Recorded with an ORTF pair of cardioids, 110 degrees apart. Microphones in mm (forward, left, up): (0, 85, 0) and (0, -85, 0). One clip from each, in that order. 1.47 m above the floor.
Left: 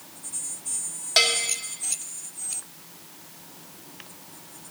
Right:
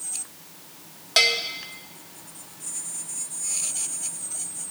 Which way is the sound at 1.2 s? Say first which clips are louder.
Right 1 dB; straight ahead.